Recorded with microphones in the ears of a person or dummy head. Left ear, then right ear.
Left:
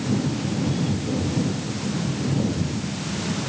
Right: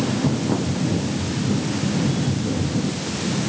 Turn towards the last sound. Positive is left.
No sound to turn to.